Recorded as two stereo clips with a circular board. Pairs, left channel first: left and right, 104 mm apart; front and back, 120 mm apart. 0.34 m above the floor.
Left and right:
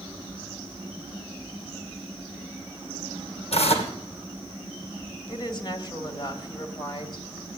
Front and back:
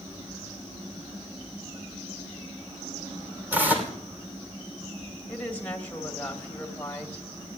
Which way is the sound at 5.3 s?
75° left.